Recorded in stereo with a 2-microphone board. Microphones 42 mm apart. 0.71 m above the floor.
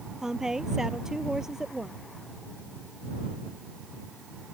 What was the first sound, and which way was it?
A woman speaking, 15° right (ahead or behind).